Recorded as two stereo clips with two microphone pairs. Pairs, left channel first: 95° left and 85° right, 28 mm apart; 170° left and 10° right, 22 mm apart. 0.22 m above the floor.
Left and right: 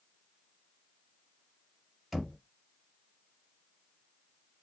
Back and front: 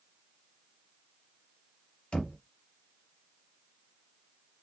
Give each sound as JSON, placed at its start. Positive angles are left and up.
{"t": 2.1, "sound": "knocking", "azimuth_deg": -165, "distance_m": 1.4}